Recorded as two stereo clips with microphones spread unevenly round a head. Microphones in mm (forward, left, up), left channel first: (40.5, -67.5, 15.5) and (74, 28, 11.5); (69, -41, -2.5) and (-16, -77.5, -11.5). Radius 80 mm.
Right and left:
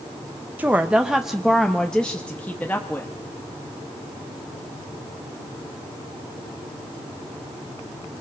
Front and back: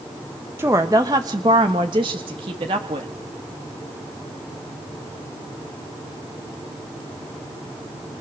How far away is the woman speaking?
About 1.2 m.